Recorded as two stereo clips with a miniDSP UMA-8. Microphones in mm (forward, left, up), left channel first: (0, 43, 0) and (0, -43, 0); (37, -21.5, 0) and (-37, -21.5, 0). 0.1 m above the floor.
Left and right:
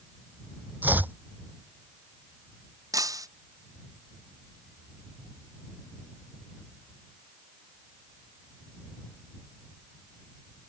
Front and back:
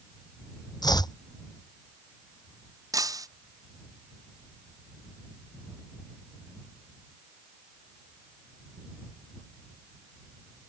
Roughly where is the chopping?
Ahead.